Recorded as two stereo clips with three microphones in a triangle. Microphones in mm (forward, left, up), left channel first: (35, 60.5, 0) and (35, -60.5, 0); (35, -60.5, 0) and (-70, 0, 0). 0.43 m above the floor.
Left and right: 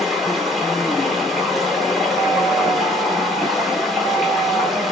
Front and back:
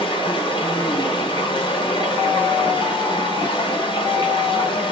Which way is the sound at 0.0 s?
Straight ahead.